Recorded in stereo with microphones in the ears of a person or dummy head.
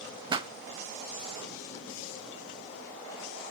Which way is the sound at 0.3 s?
15° right (ahead or behind).